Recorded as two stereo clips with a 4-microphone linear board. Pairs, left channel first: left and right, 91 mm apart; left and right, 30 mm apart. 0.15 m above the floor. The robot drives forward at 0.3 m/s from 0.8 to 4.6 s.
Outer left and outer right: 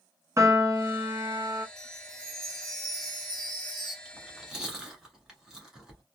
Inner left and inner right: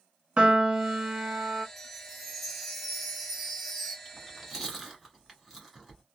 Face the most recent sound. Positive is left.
turn(degrees=-5)  # may be behind; listen again after turning